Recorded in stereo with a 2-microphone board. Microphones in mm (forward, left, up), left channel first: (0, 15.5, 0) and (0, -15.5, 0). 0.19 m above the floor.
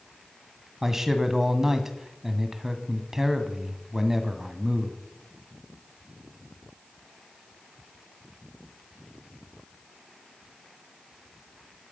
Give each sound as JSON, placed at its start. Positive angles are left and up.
{"t": 0.8, "sound": "a man speaking", "side_deg": -10, "distance_m": 1.6}